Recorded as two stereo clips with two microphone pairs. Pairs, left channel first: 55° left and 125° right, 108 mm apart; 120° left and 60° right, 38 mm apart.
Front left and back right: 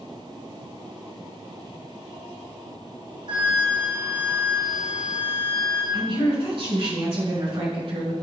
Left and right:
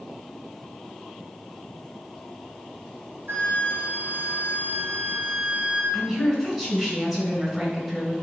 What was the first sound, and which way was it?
A flute, 90° right.